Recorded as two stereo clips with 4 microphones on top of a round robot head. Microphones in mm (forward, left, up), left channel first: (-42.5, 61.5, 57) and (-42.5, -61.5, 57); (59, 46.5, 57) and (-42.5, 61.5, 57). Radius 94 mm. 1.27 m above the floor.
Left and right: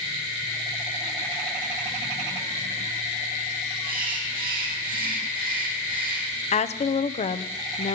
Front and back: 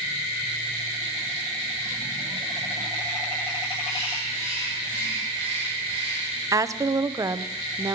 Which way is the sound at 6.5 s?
115° left.